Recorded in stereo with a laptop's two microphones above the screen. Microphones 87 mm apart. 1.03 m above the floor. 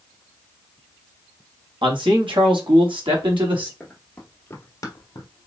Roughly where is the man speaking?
Right.